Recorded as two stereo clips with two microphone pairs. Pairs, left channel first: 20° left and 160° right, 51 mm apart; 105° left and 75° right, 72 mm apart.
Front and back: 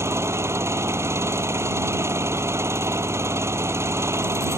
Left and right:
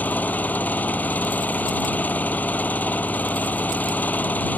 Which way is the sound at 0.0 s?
175° left.